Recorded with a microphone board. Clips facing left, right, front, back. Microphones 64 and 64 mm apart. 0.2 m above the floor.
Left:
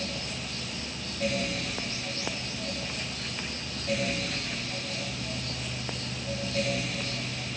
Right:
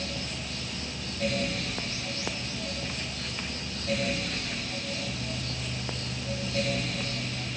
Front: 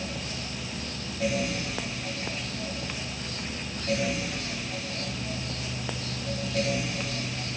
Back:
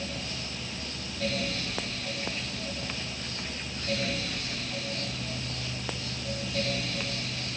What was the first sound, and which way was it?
Only background noise.